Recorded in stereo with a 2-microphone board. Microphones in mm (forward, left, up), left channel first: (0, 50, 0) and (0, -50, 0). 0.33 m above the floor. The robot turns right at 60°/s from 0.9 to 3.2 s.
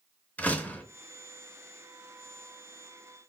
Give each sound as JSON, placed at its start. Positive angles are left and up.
{"t": 0.4, "sound": "a door slam", "side_deg": 15, "distance_m": 0.6}